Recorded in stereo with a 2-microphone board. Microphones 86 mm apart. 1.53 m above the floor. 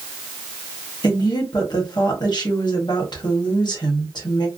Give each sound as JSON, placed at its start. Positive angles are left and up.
{"t": 1.0, "sound": "a woman speaking", "side_deg": 60, "distance_m": 1.1}